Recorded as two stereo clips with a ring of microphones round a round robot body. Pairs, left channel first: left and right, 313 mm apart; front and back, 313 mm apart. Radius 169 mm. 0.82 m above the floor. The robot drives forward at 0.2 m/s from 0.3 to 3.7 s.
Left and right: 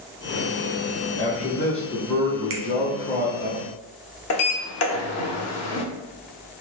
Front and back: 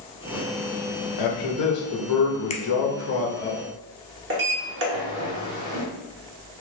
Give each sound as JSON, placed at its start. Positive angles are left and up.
{"t": 1.2, "sound": "a man speaking", "azimuth_deg": 15, "distance_m": 0.8}
{"t": 2.5, "sound": "a finger snap", "azimuth_deg": -65, "distance_m": 0.6}
{"t": 4.3, "sound": "a sliding door", "azimuth_deg": 125, "distance_m": 0.6}